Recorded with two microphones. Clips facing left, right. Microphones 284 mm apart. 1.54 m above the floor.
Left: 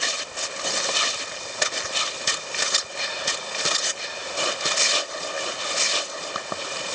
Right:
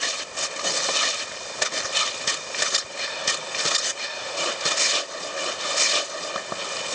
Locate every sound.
Only background noise.